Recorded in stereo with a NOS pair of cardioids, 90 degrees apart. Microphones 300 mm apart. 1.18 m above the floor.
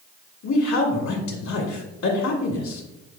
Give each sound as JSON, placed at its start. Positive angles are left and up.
{"t": 0.4, "sound": "a man speaking", "azimuth_deg": 60, "distance_m": 1.4}